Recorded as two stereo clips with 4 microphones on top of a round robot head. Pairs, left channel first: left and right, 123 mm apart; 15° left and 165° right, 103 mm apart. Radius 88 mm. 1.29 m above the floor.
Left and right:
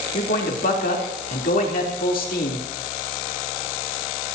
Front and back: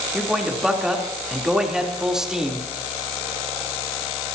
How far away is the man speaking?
About 3.5 m.